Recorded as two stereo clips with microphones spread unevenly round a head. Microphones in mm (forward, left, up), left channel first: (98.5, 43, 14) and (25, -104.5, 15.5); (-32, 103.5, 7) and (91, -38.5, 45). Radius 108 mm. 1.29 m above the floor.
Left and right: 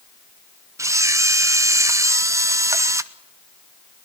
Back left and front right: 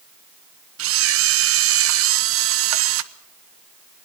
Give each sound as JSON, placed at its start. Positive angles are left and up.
{"t": 0.8, "sound": "a camera shutter", "azimuth_deg": -45, "distance_m": 1.1}